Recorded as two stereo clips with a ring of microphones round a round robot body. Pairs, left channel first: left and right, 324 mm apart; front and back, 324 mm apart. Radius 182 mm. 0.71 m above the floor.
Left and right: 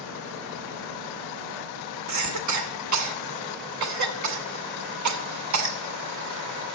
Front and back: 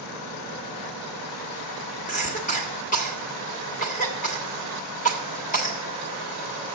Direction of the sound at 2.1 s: 65° right.